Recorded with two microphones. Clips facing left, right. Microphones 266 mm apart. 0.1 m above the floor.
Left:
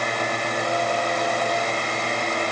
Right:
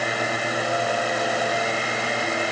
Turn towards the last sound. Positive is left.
No sound to turn to.